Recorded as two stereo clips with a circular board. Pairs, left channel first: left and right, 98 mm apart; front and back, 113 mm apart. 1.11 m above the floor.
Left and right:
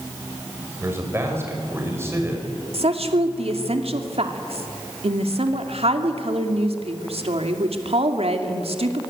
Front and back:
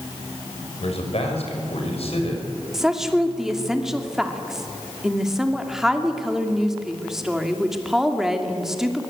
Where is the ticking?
I don't hear ticking.